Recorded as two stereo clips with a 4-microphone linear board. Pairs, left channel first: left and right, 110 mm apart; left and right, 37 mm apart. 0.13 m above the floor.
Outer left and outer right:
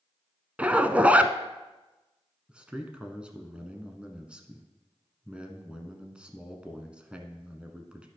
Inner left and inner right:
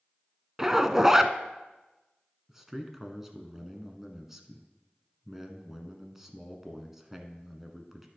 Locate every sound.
0.6 s a zipper: 15° right (ahead or behind), 0.5 m
2.5 s a man speaking: 10° right (ahead or behind), 1.0 m